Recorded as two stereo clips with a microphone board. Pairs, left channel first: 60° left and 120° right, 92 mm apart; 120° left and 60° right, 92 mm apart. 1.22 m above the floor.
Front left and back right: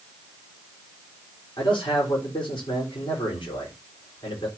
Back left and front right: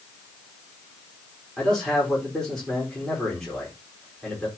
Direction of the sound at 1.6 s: 35° left.